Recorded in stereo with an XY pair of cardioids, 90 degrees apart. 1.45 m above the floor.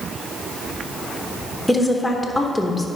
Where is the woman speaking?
15° left, 1.3 m.